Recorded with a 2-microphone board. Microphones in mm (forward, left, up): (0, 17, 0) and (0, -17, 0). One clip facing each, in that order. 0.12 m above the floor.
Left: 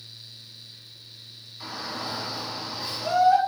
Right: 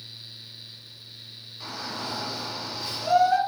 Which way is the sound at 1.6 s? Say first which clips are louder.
Left 1 dB; 10° left (ahead or behind).